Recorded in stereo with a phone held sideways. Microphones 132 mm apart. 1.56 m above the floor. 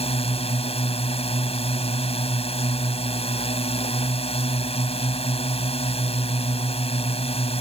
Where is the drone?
50° left (ahead or behind).